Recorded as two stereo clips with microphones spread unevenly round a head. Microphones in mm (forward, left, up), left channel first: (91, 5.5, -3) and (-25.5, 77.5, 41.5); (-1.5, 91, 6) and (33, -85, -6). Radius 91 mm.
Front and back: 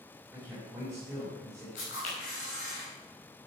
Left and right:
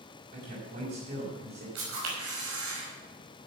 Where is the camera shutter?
80° right, 5 m.